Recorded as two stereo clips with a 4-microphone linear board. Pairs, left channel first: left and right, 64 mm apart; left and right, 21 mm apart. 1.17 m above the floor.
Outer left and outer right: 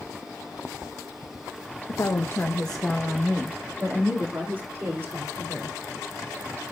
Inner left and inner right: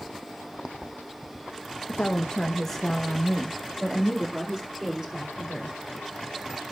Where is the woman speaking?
60° left (ahead or behind), 1.0 m; by 5.8 s 45° right (ahead or behind), 3.5 m.